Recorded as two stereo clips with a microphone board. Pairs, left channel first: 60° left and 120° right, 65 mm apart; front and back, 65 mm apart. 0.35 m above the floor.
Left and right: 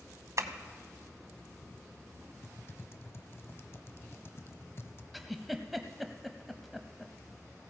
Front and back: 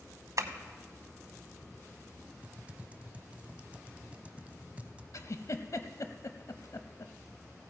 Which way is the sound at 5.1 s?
30° right.